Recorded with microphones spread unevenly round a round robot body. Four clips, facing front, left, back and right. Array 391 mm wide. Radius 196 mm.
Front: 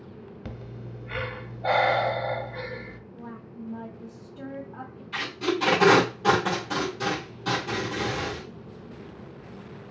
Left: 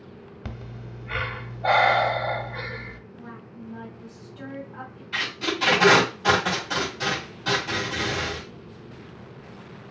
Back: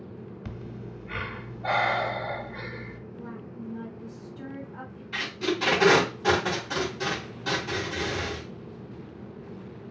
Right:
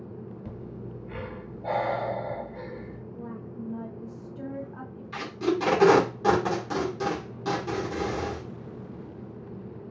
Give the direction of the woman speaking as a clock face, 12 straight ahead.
2 o'clock.